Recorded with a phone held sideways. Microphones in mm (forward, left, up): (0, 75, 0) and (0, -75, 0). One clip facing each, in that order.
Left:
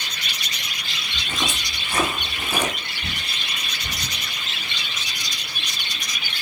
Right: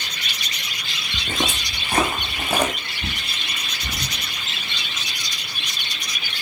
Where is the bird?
75° right (ahead or behind), 3.5 m.